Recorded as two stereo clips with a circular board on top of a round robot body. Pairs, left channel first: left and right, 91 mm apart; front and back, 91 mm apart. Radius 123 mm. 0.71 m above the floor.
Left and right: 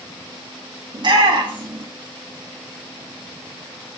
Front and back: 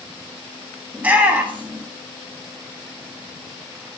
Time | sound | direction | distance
0.9 | a shout | 110° right | 1.8 m